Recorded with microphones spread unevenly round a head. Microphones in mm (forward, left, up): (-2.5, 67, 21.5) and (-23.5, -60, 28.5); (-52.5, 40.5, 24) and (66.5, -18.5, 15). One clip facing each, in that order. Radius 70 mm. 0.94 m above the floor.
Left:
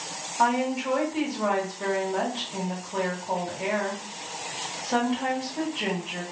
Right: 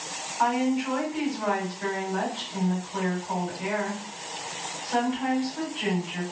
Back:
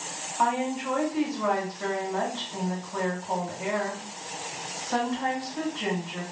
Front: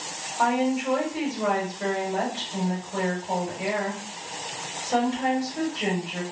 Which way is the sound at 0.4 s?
35° left.